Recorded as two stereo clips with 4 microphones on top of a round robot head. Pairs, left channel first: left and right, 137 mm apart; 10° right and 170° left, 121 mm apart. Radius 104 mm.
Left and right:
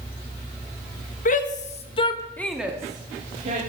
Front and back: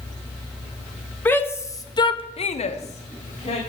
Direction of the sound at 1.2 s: 65° left.